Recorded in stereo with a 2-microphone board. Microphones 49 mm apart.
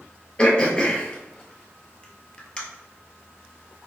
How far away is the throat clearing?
About 0.9 m.